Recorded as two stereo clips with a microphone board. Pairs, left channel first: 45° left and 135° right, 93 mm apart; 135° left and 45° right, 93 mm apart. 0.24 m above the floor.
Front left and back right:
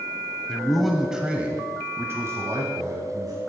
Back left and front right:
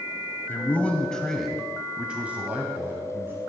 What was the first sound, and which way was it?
A man speaking, 115° left.